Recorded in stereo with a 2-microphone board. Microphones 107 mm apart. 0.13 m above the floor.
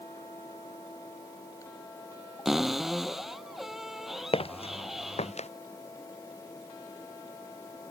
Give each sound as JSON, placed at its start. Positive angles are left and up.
{"t": 2.5, "sound": "a cupboard door", "side_deg": -5}
{"t": 4.3, "sound": "footsteps", "side_deg": 60}